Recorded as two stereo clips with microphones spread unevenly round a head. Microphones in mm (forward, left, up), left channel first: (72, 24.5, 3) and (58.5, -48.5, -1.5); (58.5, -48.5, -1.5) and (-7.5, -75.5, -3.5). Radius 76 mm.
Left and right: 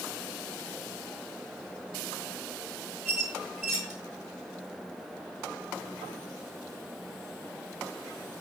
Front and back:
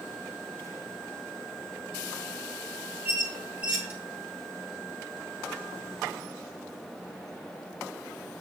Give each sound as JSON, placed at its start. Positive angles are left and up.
{"t": 3.0, "sound": "a squeak", "azimuth_deg": 155, "distance_m": 1.4}